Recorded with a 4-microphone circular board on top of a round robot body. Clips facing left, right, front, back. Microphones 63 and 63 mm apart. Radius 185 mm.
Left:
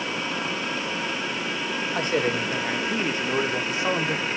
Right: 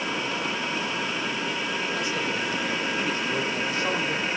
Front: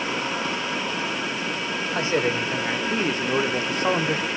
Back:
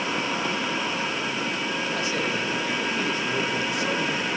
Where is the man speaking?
50° left, 2.5 m; by 4.3 s 15° left, 1.8 m.